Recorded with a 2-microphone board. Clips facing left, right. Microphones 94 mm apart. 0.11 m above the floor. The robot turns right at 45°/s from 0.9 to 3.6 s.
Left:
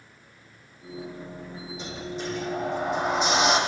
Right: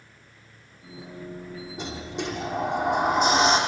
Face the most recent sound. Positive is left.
turn(degrees=-40)